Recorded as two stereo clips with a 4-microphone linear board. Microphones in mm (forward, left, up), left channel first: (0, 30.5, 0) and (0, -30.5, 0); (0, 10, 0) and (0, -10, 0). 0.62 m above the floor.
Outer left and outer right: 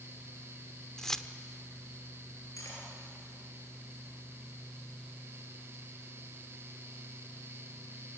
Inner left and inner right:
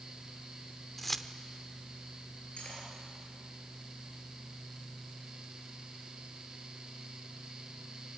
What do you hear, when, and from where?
1.0 s keys jangling: 10° left (ahead or behind), 0.9 m
2.6 s cutlery clinking: 60° left (ahead or behind), 7 m